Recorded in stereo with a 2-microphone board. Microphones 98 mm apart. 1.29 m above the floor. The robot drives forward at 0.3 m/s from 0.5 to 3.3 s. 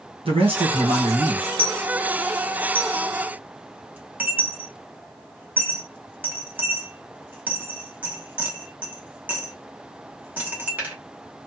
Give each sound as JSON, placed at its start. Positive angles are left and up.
{"t": 0.2, "sound": "a man speaking", "side_deg": -65, "distance_m": 1.5}
{"t": 1.6, "sound": "a dropped coin", "side_deg": -20, "distance_m": 0.7}